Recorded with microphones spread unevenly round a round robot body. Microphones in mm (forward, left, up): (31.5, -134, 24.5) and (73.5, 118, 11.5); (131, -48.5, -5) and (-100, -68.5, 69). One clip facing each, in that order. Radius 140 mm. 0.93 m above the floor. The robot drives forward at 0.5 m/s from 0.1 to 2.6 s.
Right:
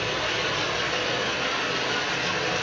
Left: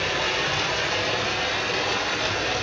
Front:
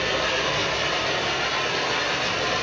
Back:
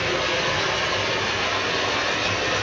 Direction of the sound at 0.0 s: 115° left.